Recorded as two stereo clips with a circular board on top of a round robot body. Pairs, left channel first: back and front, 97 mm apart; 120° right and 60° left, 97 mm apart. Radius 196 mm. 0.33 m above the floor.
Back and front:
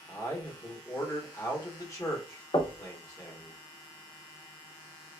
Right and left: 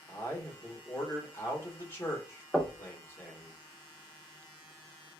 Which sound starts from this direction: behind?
A man speaking, at 0.1 s.